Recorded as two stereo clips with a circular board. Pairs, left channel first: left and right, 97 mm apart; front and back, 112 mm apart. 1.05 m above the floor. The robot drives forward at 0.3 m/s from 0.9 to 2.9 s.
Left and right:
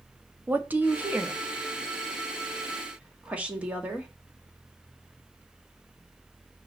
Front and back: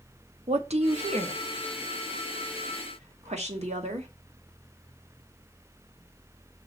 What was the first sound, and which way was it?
A woman speaking, 160° right.